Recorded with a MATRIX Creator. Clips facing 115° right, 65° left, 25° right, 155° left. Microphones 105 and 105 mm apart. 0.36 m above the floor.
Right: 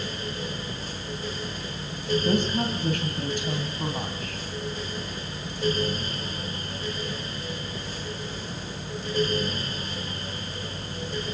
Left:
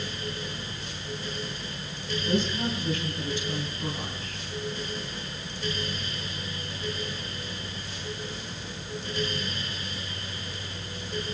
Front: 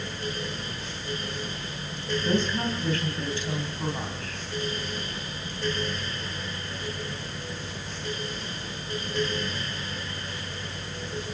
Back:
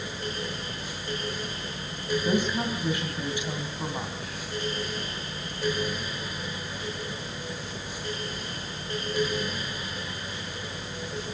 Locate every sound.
2.2 s a woman speaking: 130° right, 2.5 m